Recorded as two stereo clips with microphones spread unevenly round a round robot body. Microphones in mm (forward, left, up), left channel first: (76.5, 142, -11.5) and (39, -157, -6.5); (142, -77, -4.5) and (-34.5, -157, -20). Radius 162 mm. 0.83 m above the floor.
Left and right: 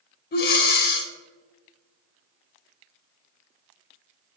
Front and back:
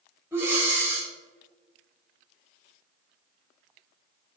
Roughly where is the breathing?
Behind left.